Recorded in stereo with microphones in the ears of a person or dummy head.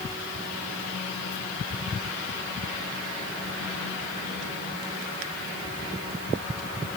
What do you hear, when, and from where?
Only background noise.